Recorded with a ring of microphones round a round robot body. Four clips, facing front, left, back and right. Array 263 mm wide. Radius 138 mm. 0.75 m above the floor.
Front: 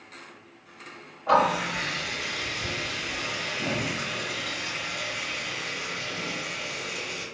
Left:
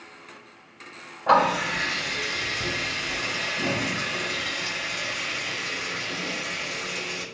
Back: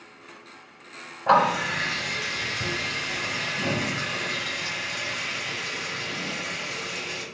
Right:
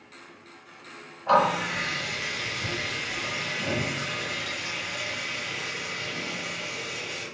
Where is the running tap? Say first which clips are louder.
Left 2 dB, back 2 dB; 145° left, 4 m.